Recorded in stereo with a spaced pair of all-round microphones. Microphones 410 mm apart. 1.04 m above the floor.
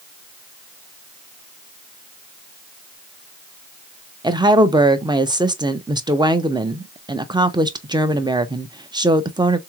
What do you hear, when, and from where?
4.2 s a woman speaking: 10° right (ahead or behind), 0.5 m